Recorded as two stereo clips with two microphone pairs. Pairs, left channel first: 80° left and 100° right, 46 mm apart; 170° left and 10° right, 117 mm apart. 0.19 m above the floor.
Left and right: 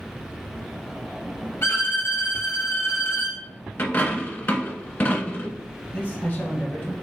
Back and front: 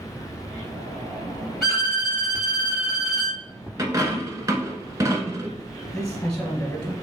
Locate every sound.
1.6 s a violin: 85° left, 1.6 m
3.8 s a dropped coin: 45° left, 0.8 m
5.9 s a man speaking: 90° left, 1.8 m